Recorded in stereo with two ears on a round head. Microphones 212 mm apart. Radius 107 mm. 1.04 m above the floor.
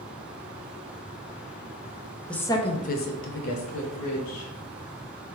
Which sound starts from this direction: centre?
A woman speaking, at 2.3 s.